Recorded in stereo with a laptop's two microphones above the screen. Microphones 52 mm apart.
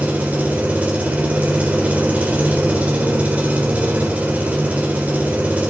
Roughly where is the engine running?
Right.